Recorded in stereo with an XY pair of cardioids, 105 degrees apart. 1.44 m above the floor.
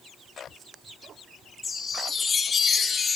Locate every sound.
1.6 s a chime: 30° left, 1.6 m